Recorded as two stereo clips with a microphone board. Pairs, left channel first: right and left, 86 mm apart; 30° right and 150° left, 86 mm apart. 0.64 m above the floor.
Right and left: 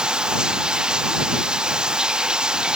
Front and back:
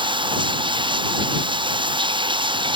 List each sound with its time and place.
0.0 s running water: 170° left